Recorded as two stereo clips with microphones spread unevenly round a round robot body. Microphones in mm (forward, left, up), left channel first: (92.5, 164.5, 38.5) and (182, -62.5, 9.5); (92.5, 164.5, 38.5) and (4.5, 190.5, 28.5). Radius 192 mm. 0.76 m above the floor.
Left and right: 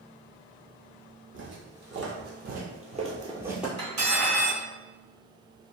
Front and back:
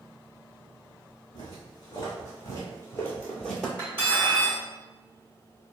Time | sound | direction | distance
1.3 | footsteps | 40° right | 1.4 m
3.8 | cutlery clinking | 75° right | 1.4 m